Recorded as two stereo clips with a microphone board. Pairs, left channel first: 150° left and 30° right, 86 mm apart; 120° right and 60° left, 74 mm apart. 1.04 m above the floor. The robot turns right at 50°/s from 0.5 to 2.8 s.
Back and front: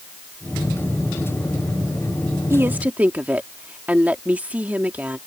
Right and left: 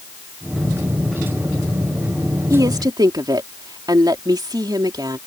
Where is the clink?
No clink in this recording.